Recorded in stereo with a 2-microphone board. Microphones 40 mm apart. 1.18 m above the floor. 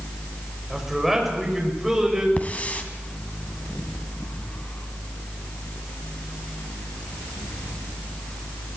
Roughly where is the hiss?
Left.